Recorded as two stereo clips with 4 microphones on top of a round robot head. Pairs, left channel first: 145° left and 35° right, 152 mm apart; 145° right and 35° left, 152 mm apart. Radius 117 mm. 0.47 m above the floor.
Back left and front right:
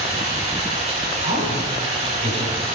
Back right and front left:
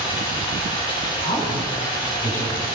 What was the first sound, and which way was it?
Running water, 85° right.